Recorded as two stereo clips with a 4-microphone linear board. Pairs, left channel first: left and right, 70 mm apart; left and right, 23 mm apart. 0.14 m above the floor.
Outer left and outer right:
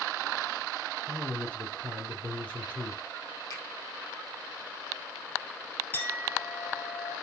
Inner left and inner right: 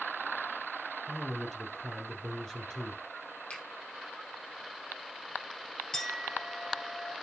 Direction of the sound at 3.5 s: 65° left (ahead or behind).